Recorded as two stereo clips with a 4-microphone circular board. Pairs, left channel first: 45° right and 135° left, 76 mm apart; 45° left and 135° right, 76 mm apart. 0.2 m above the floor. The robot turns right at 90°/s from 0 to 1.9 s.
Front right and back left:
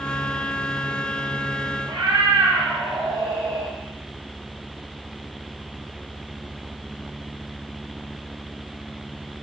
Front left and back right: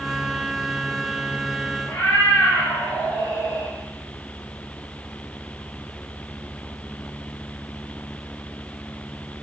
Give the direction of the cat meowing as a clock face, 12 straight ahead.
8 o'clock.